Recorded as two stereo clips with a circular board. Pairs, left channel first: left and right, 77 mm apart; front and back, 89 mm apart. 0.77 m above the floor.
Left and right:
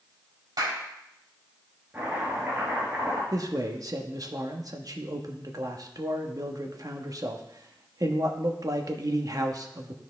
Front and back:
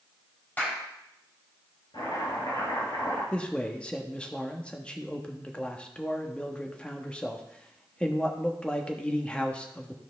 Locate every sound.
0.6 s a clap: 70° right, 3 m
1.9 s chopping: 15° right, 4.5 m
3.3 s a man speaking: 75° right, 1.0 m